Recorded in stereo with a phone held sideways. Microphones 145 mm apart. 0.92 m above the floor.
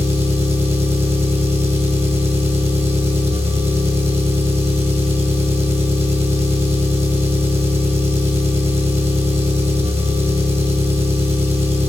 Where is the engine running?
20° right (ahead or behind), 2 m.